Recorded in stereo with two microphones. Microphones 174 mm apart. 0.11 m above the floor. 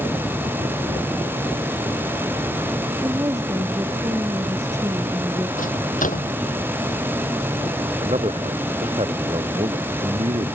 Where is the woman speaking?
20° right (ahead or behind).